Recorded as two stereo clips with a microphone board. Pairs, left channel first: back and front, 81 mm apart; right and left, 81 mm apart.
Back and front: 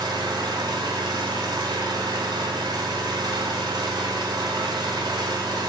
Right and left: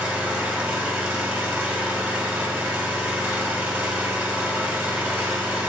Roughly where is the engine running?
Ahead.